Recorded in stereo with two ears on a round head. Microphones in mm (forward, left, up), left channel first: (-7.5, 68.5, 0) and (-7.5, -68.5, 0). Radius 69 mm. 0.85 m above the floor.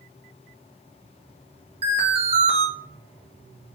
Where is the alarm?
40° right (ahead or behind), 1.5 m.